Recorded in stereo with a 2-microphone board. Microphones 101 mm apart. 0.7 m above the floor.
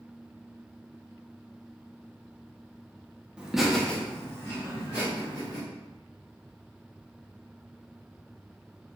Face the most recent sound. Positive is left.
turn(degrees=35)  # may be behind; listen again after turning